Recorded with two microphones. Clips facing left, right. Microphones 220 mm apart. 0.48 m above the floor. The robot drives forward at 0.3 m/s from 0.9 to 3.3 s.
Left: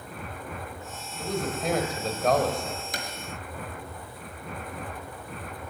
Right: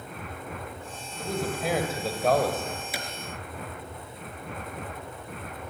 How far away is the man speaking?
About 2.5 m.